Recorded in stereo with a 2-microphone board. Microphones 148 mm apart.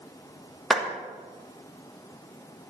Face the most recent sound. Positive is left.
turn(degrees=0)  # may be behind; listen again after turning